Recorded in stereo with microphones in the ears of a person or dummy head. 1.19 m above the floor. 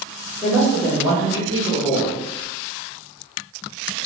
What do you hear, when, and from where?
0.4 s a woman speaking: centre (ahead or behind), 1.0 m